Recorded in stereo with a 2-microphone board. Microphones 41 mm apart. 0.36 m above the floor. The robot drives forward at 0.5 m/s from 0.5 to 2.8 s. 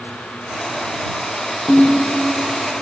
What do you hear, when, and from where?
1.7 s a ringtone: 30° left (ahead or behind), 1.3 m; by 2.0 s 25° left (ahead or behind), 1.4 m